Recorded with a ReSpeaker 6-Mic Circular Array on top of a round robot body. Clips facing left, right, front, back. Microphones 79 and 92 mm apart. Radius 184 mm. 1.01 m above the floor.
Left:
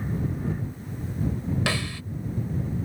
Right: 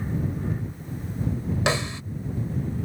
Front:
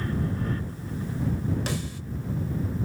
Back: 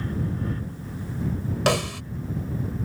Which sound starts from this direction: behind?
A snare drum, at 1.7 s.